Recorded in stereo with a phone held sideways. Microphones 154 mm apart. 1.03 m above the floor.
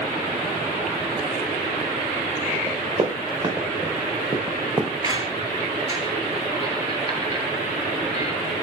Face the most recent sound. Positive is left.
turn(degrees=-25)  # may be behind; listen again after turning